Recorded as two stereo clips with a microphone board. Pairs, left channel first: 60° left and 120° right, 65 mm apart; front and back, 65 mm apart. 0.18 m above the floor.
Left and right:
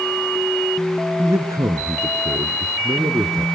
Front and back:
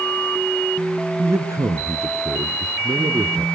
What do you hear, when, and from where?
1.2 s a man speaking: 145° right, 2 m